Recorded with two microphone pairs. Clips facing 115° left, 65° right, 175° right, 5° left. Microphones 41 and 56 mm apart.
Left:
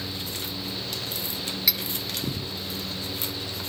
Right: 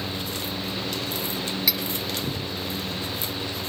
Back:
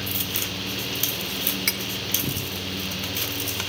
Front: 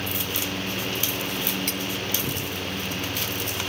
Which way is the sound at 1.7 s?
155° right.